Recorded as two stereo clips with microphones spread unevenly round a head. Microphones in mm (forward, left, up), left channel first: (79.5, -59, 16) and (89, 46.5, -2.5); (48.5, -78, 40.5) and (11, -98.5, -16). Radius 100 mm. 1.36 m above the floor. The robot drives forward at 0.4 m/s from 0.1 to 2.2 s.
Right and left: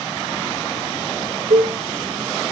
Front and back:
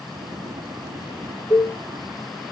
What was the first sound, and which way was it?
A cowbell, 100° left.